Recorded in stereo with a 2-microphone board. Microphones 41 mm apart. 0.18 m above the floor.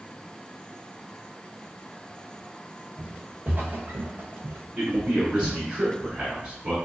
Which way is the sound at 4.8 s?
25° right (ahead or behind).